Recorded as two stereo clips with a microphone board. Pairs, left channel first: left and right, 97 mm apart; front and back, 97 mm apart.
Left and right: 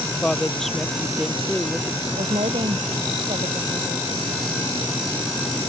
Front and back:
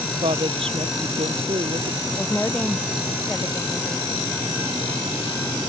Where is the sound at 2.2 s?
75° right.